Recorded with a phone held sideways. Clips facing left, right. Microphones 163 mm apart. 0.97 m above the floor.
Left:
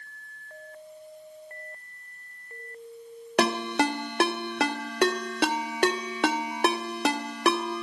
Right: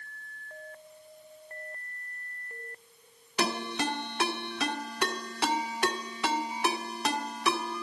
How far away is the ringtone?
About 0.5 m.